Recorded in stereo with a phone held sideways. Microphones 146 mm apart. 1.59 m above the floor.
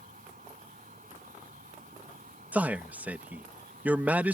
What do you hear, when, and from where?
0.0 s an insect: 70° right (ahead or behind)
2.5 s a man speaking: 10° right (ahead or behind)